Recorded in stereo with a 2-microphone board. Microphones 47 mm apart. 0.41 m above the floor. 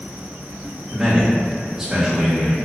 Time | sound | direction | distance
0.9 | a man speaking | 10° right (ahead or behind) | 0.9 m